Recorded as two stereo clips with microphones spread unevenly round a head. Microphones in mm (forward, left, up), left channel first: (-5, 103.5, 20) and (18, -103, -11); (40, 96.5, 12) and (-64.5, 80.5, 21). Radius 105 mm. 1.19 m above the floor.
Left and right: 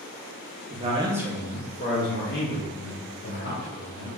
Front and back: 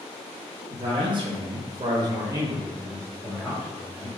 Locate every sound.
0.7 s a man speaking: 125° right, 0.6 m; by 4.1 s 110° left, 1.4 m